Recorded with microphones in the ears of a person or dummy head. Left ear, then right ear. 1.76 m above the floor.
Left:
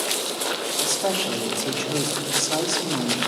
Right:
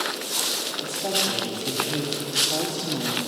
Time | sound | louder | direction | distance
0.8 | a woman speaking | left 2 dB | 55° left (ahead or behind) | 1.2 m